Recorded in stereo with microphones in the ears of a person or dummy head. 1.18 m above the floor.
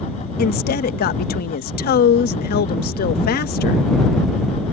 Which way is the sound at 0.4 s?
55° left (ahead or behind).